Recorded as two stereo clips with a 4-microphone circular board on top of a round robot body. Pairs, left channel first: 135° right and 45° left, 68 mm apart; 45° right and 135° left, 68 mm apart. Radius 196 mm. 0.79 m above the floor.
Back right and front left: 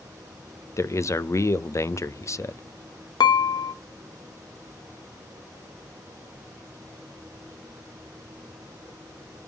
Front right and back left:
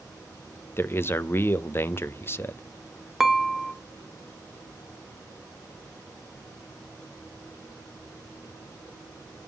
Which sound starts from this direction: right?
A man speaking, at 0.8 s.